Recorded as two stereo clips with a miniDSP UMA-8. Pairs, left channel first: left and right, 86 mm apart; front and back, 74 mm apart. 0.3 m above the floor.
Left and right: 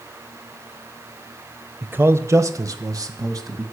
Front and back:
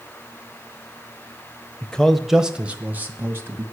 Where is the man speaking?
55° right, 0.9 m; by 3.6 s 130° right, 1.9 m.